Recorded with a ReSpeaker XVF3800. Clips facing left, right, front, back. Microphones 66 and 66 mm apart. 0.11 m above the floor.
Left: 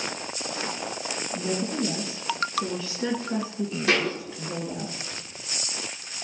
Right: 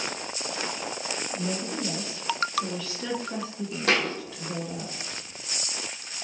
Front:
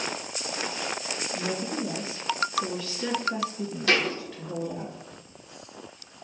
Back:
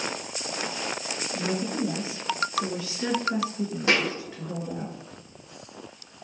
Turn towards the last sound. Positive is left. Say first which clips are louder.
# even, even
turn(degrees=-115)